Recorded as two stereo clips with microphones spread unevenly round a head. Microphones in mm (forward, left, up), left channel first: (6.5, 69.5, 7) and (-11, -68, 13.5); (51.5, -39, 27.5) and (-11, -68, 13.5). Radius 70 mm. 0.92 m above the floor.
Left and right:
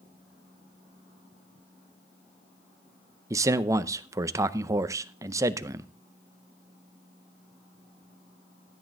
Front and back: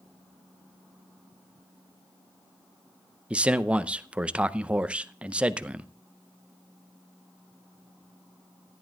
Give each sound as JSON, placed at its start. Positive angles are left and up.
{"t": 3.3, "sound": "a man speaking", "azimuth_deg": -145, "distance_m": 0.6}